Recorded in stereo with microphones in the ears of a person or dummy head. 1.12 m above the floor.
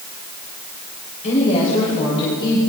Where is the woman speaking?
40° left (ahead or behind), 5.5 m; by 2.6 s 20° left (ahead or behind), 4.5 m.